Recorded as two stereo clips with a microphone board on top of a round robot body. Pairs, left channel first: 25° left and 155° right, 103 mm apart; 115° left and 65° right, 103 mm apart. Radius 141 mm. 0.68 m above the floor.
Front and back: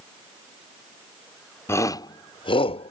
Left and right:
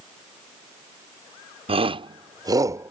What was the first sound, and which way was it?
A shout, 40° right.